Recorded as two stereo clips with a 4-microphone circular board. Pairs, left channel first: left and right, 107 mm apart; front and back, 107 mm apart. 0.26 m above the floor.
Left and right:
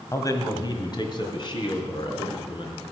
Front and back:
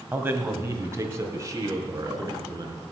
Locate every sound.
0.1 s a man speaking: 120° left, 1.5 m; by 2.8 s 125° left, 3.5 m